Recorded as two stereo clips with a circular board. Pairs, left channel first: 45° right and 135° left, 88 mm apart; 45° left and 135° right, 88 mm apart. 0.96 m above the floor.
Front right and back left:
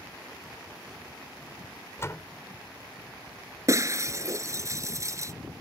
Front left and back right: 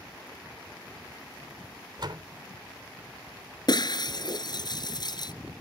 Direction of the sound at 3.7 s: 80° left.